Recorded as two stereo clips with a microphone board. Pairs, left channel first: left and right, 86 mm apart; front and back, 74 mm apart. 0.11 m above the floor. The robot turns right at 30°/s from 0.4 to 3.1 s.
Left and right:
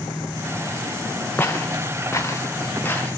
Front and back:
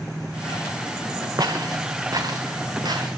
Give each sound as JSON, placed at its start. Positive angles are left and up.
{"t": 1.4, "sound": "footsteps", "azimuth_deg": 155, "distance_m": 0.6}